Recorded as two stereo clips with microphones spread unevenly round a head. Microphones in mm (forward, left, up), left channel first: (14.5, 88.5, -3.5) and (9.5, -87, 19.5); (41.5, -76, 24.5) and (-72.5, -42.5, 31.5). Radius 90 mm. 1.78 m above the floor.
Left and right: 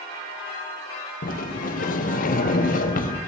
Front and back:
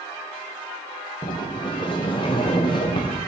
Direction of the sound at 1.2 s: 45° left.